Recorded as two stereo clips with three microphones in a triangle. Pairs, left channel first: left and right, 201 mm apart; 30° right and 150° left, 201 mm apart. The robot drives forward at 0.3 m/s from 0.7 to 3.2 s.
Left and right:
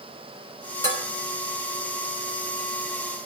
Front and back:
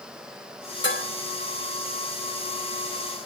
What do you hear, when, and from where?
0.8 s dishes clattering: 55° right, 2.5 m